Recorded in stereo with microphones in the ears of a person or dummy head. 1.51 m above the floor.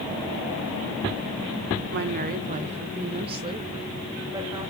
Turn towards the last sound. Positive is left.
turn(degrees=-15)  # may be behind; listen again after turning